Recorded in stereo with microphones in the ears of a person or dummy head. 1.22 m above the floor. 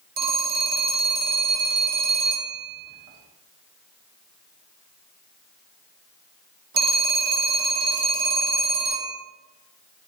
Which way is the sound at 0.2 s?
45° right (ahead or behind).